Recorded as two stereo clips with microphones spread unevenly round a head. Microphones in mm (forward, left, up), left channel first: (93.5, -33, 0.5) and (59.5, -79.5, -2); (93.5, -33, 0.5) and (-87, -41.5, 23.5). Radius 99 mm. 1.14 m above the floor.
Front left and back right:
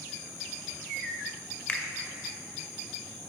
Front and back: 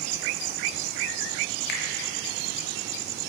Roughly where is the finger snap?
Ahead.